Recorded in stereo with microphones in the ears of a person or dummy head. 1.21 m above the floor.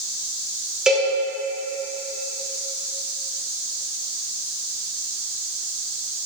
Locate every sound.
0.9 s a cowbell: 5° right (ahead or behind), 1.2 m